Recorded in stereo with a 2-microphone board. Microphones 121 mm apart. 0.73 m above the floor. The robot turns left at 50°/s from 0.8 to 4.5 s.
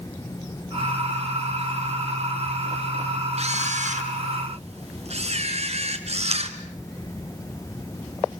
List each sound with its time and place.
3.4 s a camera shutter: 60° right, 2 m; by 6.5 s 120° right, 2 m